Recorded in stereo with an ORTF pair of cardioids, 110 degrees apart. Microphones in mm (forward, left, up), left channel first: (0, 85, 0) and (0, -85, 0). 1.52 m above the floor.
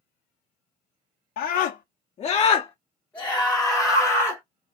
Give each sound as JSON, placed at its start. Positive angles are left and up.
{"t": 1.4, "sound": "a scream", "azimuth_deg": 65, "distance_m": 0.9}